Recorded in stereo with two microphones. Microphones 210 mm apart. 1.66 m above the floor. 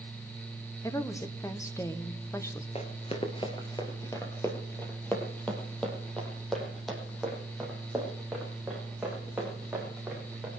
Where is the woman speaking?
15° left (ahead or behind), 1.2 m.